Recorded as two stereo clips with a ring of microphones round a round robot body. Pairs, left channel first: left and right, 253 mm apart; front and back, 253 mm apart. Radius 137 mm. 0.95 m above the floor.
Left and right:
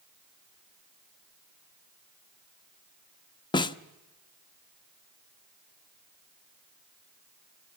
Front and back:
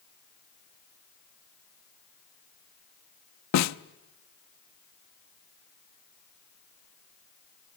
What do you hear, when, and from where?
3.5 s a snare drum: 15° left, 0.8 m